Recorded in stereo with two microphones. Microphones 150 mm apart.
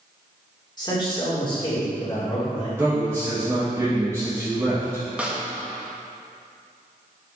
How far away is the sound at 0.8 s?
About 2.5 m.